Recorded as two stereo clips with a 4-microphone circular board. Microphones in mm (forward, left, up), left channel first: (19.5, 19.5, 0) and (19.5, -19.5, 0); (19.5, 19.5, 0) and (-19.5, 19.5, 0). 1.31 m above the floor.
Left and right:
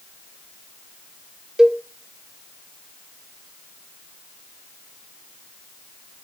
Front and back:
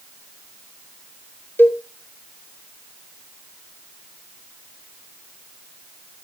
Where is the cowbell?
20° right, 0.6 m.